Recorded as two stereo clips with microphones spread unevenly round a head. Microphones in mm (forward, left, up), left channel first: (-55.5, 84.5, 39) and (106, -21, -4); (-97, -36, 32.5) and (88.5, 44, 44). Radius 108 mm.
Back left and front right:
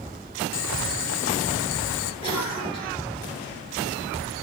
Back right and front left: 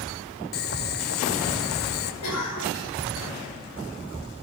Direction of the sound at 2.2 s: 145° right.